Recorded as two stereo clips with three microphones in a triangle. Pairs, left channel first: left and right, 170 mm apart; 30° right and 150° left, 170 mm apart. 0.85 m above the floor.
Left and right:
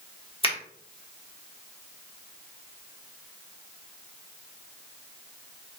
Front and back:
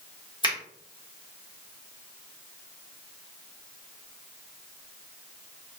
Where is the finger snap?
35° left, 1.3 m.